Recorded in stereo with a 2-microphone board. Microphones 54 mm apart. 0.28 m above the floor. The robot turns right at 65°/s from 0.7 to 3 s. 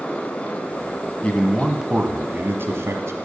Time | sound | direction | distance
1.2 | a man speaking | 155° left | 1.7 m